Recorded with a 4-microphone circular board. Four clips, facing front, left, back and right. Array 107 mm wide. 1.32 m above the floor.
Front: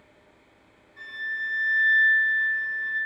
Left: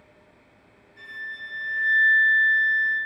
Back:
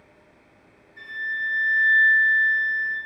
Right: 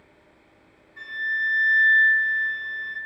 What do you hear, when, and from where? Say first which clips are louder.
1.0 s a flute: right 9 dB, back 3 dB; 95° right, 2 m